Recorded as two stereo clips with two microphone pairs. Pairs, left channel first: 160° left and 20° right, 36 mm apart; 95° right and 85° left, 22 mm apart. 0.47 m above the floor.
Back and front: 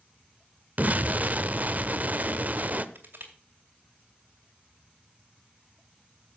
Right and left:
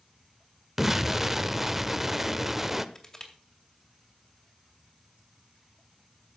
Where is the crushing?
30° right, 2.5 m.